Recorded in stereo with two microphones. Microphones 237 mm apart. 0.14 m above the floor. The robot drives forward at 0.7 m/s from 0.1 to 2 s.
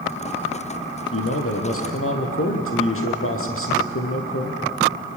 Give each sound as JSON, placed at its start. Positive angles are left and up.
{"t": 1.1, "sound": "a man speaking", "side_deg": 70, "distance_m": 4.5}